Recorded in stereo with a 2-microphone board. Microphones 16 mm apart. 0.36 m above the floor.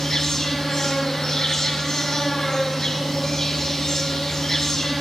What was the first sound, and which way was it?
An insect, 40° left (ahead or behind).